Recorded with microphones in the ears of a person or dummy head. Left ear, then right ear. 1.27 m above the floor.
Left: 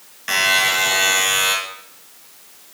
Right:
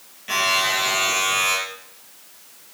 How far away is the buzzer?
About 4 m.